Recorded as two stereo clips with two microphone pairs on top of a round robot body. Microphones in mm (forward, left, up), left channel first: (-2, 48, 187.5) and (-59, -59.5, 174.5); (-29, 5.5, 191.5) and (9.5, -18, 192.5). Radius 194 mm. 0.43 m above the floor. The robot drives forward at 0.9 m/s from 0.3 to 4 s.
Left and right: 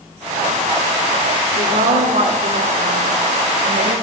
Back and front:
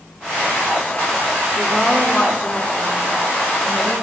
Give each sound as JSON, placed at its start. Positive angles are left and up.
{"t": 1.6, "sound": "a woman speaking", "azimuth_deg": -135, "distance_m": 5.0}